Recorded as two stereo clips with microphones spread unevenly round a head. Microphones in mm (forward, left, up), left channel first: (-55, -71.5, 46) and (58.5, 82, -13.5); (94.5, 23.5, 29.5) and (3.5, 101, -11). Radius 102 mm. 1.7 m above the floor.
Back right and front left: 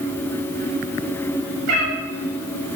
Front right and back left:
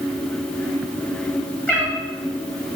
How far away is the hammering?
No hammering in this recording.